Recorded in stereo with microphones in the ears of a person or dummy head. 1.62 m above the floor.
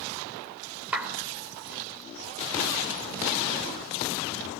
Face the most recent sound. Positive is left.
turn(degrees=-5)  # may be behind; listen again after turning